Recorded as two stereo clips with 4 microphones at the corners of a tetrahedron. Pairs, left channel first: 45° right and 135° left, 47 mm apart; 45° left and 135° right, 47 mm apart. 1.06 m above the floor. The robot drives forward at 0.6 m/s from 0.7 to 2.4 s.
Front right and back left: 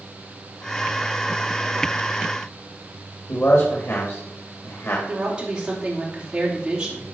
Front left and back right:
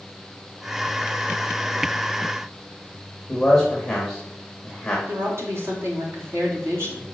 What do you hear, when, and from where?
3.3 s a man speaking: 35° right, 2 m
5.1 s a woman speaking: 155° right, 3 m